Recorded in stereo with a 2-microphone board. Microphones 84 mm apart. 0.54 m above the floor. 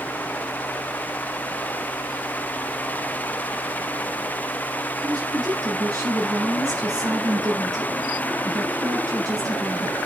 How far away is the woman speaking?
About 6.5 m.